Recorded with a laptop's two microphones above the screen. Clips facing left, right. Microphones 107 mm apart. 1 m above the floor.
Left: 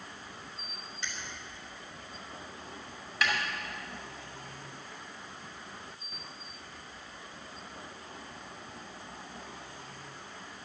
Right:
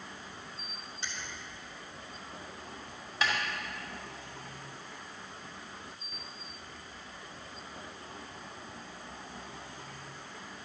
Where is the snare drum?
25° right (ahead or behind), 2.5 m.